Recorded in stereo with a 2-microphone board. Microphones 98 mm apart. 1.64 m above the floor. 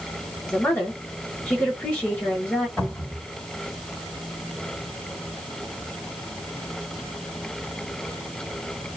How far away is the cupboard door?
About 2 m.